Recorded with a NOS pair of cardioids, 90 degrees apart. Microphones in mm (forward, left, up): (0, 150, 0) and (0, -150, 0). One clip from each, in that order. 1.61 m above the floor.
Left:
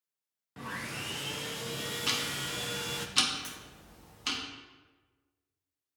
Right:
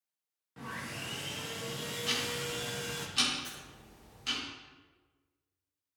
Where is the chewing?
I don't hear chewing.